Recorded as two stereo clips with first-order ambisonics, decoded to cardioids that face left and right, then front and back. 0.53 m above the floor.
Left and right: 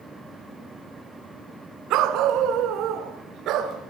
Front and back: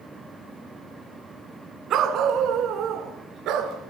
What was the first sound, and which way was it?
A dog barking, 130° right.